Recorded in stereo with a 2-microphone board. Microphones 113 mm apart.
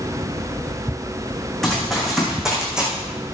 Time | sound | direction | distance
1.6 | running footsteps | 5° left (ahead or behind) | 4 m